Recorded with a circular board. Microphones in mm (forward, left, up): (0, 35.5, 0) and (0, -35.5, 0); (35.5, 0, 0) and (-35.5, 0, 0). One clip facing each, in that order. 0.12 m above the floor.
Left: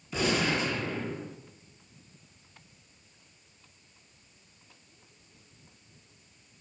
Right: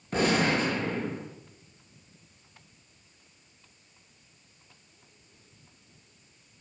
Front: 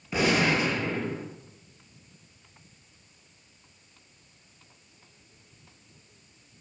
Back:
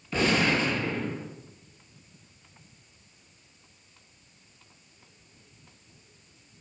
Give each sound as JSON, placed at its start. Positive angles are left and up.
{"t": 0.1, "sound": "a gunshot", "azimuth_deg": -70, "distance_m": 2.0}